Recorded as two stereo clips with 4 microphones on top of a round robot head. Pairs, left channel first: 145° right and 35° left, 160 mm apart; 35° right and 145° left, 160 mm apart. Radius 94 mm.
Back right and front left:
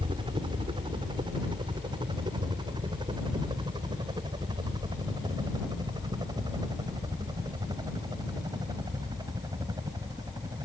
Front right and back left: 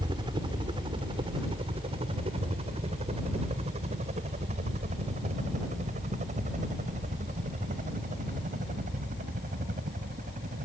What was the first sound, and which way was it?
A helicopter, 90° left.